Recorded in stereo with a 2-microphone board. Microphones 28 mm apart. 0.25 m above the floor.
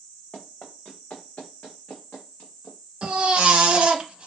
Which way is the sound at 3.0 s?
40° right (ahead or behind).